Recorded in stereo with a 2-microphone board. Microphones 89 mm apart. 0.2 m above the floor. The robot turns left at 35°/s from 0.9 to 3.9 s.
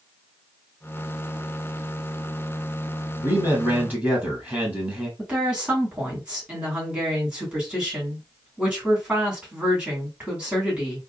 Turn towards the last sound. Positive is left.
turn(degrees=-15)  # may be behind; listen again after turning